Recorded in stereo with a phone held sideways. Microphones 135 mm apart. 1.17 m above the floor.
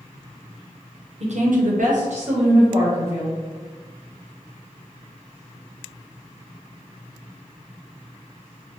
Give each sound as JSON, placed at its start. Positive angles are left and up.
{"t": 1.2, "sound": "a woman speaking", "side_deg": -50, "distance_m": 0.6}